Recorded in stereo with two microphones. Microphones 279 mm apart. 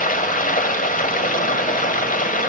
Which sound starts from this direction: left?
Running water, at 0.0 s.